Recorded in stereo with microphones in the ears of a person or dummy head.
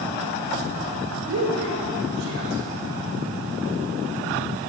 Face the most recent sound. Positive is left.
turn(degrees=-70)  # may be behind; listen again after turning